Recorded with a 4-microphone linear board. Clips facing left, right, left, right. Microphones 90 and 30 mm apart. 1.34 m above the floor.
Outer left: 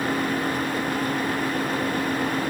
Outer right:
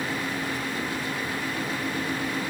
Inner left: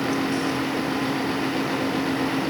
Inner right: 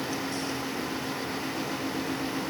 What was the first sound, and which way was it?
Only background noise.